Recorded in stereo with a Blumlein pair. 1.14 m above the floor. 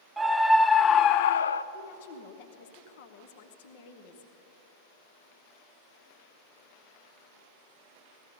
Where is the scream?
10° right, 0.9 m; by 1.6 s 80° left, 0.5 m.